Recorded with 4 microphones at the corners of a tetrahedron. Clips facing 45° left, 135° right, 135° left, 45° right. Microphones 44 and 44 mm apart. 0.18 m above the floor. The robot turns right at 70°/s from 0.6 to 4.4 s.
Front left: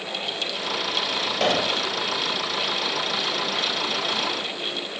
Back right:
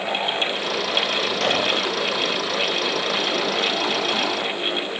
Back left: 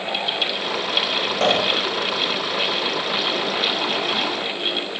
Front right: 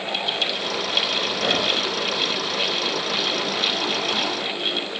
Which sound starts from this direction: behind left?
A pop, at 1.4 s.